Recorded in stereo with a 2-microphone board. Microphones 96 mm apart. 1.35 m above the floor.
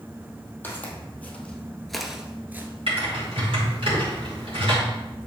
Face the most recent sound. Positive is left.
turn(degrees=-75)  # may be behind; listen again after turning